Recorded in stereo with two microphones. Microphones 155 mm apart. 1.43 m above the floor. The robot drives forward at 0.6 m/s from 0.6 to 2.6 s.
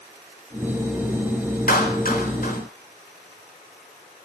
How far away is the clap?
About 4 m.